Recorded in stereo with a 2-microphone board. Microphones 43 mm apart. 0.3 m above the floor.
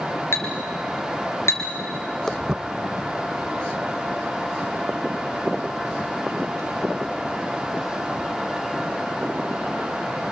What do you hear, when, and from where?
0.3 s a clink: 65° left (ahead or behind), 3.5 m
2.3 s footsteps: 15° left (ahead or behind), 0.6 m; by 9.9 s 80° right, 9.5 m